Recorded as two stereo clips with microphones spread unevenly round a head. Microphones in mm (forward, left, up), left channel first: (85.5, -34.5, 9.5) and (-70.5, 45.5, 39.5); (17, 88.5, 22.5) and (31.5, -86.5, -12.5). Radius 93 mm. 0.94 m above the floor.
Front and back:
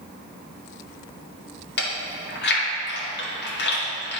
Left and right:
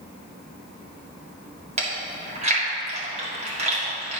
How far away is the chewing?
About 2 m.